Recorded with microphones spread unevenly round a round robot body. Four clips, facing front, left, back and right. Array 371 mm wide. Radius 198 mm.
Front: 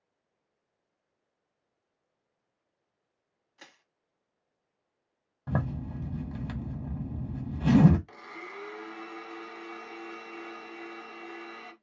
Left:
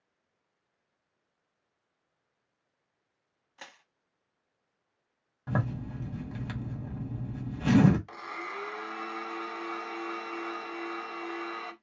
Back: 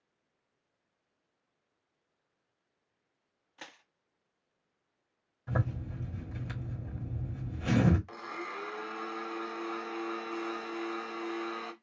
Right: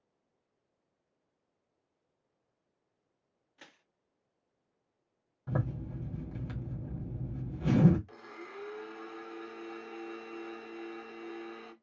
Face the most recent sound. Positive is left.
turn(degrees=115)